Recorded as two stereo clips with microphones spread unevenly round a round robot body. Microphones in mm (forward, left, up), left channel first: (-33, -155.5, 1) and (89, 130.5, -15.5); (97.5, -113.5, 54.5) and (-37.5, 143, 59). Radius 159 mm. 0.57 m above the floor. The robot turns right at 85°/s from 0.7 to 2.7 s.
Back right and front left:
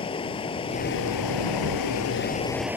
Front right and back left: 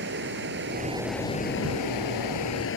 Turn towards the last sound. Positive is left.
turn(degrees=-15)